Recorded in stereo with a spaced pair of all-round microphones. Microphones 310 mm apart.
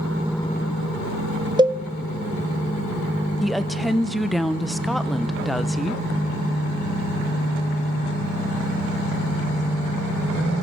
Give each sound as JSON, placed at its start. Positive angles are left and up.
{"t": 1.6, "sound": "a cowbell", "side_deg": -15, "distance_m": 0.6}
{"t": 3.4, "sound": "a woman speaking", "side_deg": 0, "distance_m": 1.0}